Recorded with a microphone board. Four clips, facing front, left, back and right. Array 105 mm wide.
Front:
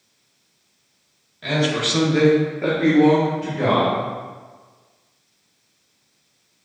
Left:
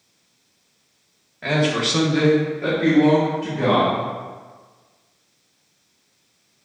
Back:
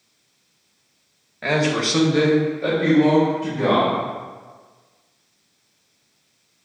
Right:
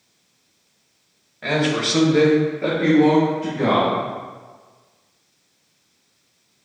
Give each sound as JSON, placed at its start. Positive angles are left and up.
{"t": 1.4, "sound": "a man speaking", "azimuth_deg": 175, "distance_m": 1.0}